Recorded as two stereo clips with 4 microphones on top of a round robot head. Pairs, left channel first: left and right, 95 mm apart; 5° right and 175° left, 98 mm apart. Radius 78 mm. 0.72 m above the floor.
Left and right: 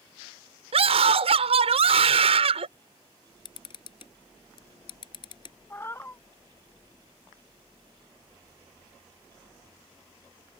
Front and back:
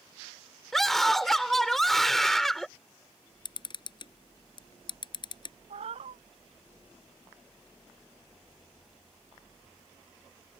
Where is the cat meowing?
155° left.